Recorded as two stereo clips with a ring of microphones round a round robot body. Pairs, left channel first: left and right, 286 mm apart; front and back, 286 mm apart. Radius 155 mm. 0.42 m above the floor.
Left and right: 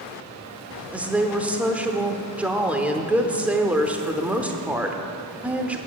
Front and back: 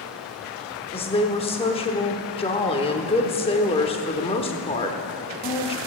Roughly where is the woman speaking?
Ahead.